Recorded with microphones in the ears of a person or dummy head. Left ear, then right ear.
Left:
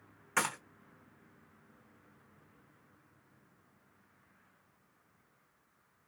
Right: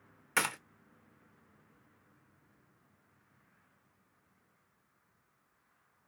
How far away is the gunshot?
About 0.6 m.